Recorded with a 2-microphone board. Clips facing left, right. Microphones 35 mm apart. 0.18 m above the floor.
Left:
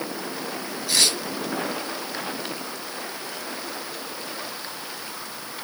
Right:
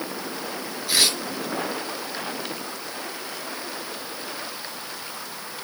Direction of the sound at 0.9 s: 20° right (ahead or behind).